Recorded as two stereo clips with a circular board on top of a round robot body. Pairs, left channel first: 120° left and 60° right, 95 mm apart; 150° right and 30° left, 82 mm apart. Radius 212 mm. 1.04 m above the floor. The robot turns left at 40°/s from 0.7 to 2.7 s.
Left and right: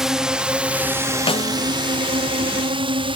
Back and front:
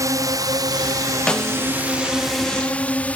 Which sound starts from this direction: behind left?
A snare drum, at 1.3 s.